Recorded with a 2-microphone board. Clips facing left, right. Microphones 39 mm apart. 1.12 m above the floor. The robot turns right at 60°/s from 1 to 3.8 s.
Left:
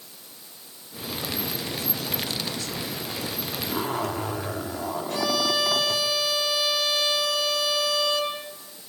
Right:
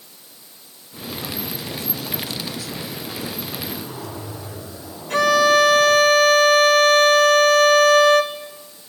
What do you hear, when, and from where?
3.7 s a zipper: 60° left (ahead or behind), 3 m; by 6.0 s 70° left (ahead or behind), 3 m
5.1 s a violin: 65° right (ahead or behind), 1.7 m